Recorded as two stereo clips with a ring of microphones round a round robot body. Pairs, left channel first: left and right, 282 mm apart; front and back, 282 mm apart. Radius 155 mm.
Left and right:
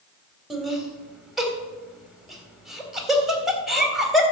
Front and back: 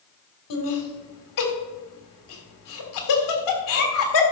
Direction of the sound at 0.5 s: Straight ahead.